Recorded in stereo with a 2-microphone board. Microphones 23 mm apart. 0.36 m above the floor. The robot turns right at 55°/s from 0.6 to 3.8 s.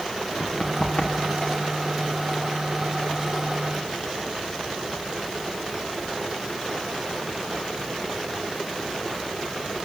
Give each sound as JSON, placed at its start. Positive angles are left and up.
{"t": 0.4, "sound": "running footsteps", "side_deg": 85, "distance_m": 3.5}